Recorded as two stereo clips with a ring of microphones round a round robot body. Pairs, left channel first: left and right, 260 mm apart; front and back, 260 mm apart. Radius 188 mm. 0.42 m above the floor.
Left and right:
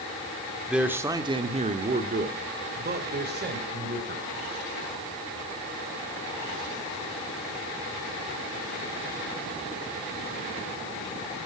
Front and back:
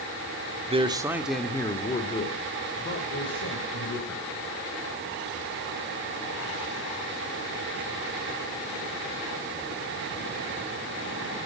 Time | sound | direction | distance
0.7 | a man speaking | 175° right | 1.2 m